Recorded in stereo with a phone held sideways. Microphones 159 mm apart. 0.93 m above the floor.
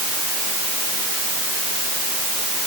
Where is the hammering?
I don't hear hammering.